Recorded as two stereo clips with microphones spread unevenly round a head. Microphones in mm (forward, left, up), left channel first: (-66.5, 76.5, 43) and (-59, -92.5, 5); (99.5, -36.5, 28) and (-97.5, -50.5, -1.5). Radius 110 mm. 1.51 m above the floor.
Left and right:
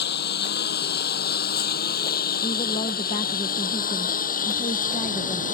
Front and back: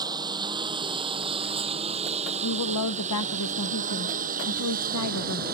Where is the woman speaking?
25° left.